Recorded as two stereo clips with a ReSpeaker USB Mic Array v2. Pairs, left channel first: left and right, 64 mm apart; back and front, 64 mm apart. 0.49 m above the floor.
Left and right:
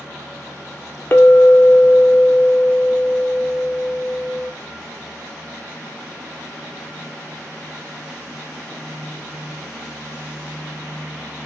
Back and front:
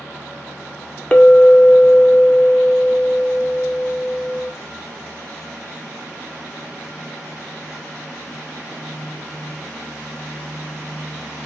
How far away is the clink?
About 0.6 m.